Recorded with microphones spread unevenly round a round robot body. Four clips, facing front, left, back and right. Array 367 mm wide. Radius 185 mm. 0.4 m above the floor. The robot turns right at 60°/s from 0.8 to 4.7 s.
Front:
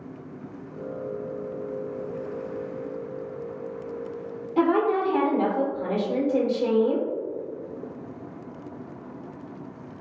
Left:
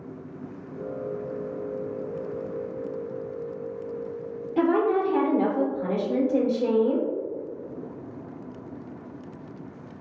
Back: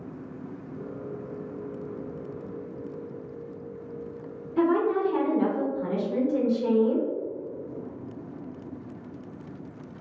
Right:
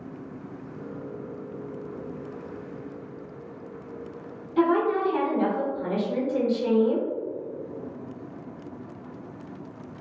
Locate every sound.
4.6 s a woman speaking: 20° left, 1.0 m; by 7.1 s 25° left, 1.0 m